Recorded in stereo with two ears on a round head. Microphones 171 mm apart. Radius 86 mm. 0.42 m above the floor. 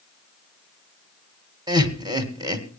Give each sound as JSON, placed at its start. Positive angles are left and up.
{"t": 1.7, "sound": "laughter", "side_deg": -20, "distance_m": 1.9}